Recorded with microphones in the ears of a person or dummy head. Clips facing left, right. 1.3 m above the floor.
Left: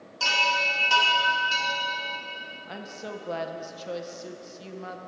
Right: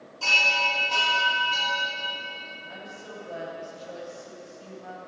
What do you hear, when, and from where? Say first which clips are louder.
0.2 s a chime: left 1 dB; 80° left, 1.6 m
2.7 s a woman speaking: left 5 dB; 70° left (ahead or behind), 0.7 m